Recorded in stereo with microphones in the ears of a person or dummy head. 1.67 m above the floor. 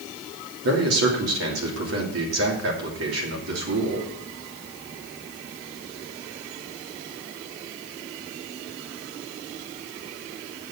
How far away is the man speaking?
About 3 m.